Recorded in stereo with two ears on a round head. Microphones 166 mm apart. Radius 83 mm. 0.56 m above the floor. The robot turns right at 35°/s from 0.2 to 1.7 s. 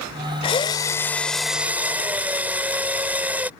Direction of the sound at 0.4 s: 145° left.